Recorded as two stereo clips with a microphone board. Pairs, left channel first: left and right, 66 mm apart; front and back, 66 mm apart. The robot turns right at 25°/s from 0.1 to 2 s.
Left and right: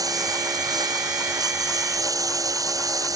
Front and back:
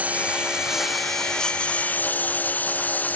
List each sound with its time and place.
0.0 s a lawn mower: 110° right; by 3.2 s 65° right